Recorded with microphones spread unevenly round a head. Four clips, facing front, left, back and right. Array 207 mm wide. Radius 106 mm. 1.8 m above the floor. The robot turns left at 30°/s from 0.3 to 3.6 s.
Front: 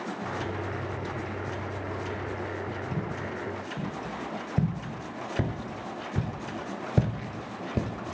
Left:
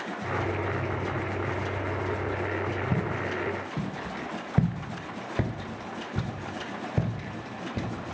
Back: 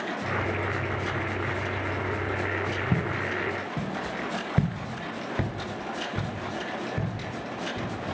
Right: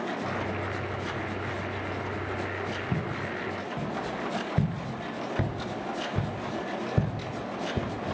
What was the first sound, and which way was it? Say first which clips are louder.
Footsteps: left 2 dB, back 5 dB; 170° left.